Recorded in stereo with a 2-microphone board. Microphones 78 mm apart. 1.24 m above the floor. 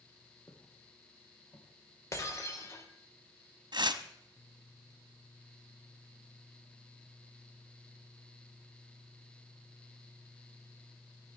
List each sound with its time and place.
0.5 s footsteps: 35° left (ahead or behind), 3.5 m; by 2.8 s 70° left (ahead or behind), 5 m
2.1 s breaking glass: 35° left (ahead or behind), 3.5 m
3.7 s tearing paper: 65° right (ahead or behind), 1.2 m